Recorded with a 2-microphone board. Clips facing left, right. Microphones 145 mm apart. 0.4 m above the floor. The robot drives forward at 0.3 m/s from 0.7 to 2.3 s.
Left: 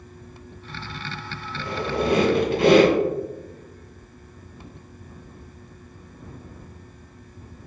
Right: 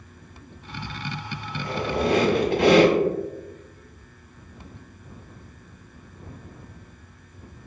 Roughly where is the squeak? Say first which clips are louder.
Even; right.